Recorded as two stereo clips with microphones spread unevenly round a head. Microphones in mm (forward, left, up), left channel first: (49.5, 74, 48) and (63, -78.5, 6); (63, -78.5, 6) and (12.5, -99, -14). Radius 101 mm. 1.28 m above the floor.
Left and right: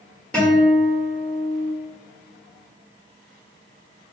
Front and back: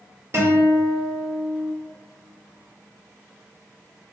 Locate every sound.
0.3 s a guitar: 170° right, 1.0 m